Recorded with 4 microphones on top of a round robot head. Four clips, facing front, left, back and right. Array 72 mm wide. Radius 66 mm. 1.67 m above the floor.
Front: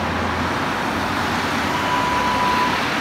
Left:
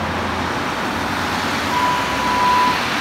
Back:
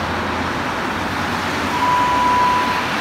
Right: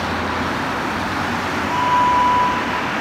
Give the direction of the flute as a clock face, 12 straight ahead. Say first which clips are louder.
Right 5 dB, back 6 dB; 1 o'clock.